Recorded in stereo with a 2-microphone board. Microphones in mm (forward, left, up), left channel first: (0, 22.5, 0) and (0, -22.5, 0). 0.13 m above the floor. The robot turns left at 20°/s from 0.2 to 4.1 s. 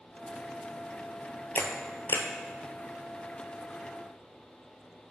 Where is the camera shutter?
45° left (ahead or behind), 0.8 m; by 2.3 s 55° left (ahead or behind), 0.8 m.